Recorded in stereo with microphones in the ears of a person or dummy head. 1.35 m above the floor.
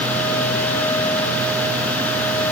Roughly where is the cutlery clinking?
I don't hear cutlery clinking.